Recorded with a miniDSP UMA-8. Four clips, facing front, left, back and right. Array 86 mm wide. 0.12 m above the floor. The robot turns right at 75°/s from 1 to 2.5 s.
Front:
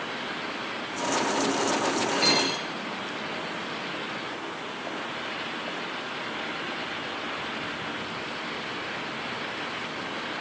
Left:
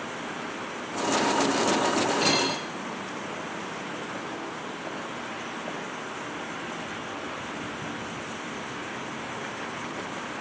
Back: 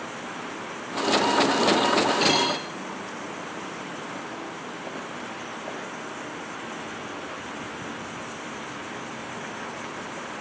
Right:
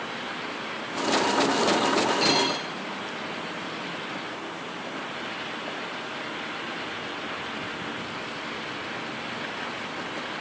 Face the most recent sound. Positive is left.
turn(degrees=-160)